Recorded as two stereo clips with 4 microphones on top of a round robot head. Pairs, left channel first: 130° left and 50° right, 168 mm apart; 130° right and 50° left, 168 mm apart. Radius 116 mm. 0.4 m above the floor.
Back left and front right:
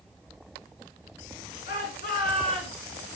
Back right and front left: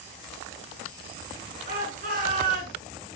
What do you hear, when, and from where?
1.7 s a shout: 95° left, 7.5 m; by 2.8 s 85° left, 7.5 m